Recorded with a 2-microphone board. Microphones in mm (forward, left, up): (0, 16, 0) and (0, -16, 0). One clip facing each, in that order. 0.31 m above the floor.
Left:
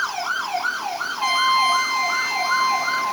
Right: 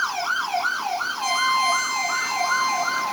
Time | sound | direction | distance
1.2 | a trumpet | 20° left (ahead or behind) | 3 m